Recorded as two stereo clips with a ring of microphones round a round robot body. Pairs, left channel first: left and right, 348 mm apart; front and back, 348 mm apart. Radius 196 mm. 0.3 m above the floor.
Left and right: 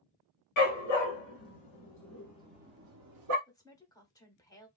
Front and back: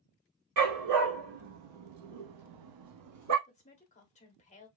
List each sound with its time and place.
0.6 s a dog barking: 135° left, 1.2 m; by 3.4 s 130° right, 0.9 m
3.5 s a woman speaking: 30° left, 0.9 m